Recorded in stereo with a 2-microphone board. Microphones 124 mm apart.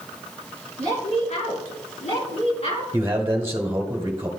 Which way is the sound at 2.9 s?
20° right (ahead or behind).